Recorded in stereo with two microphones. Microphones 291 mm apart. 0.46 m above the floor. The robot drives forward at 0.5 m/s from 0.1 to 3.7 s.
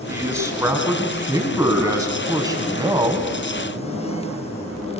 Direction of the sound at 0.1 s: 10° right (ahead or behind).